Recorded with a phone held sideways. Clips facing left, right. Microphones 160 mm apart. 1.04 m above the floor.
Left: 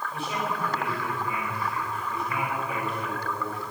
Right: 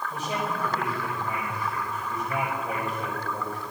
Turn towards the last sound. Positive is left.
turn(degrees=-40)  # may be behind; listen again after turning